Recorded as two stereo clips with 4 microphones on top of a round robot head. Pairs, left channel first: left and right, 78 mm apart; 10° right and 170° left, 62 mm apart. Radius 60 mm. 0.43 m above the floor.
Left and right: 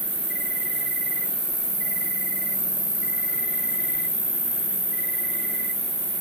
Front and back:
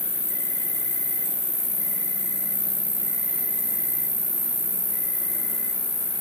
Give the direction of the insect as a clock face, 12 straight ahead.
11 o'clock.